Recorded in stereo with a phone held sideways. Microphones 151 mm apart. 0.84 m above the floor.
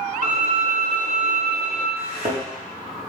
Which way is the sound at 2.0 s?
40° right (ahead or behind).